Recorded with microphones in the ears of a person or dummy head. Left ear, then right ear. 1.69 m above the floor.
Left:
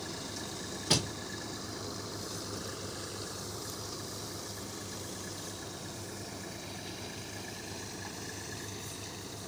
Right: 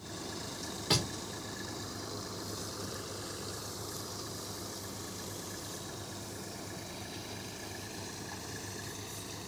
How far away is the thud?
About 1.0 m.